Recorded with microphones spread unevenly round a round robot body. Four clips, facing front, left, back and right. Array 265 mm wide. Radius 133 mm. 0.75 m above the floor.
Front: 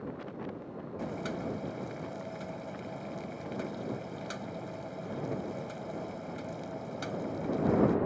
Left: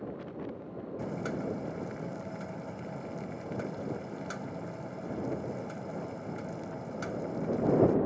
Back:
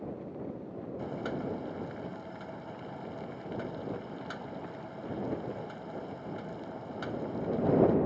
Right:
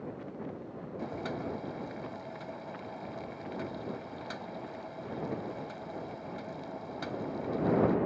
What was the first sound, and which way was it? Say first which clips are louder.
Boiling: left 2 dB, even; 85° left.